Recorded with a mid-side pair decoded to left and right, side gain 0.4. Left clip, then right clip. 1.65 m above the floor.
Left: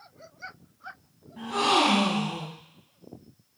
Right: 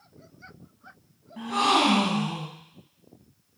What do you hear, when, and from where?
1.4 s a gasp: 40° right, 2 m